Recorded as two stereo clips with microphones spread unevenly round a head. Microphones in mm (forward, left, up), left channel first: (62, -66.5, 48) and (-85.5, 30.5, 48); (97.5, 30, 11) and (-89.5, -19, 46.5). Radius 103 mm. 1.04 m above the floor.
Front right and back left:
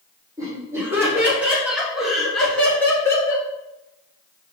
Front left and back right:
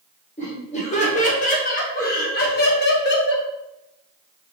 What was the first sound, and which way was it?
Laughter, 70° left.